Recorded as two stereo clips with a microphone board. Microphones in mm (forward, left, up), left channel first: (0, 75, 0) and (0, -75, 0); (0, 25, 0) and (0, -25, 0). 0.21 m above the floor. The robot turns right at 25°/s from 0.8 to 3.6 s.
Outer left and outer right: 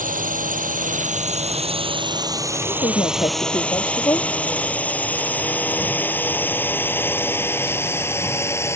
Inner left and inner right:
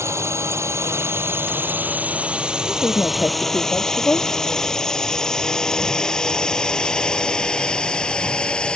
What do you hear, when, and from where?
0.0 s a drone: 65° right (ahead or behind); by 8.8 s 20° left (ahead or behind)
2.7 s a woman speaking: 45° left (ahead or behind); by 4.3 s 20° left (ahead or behind)